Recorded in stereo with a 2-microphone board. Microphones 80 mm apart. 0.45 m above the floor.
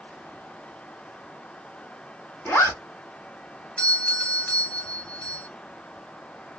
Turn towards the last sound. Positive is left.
turn(degrees=15)  # may be behind; listen again after turning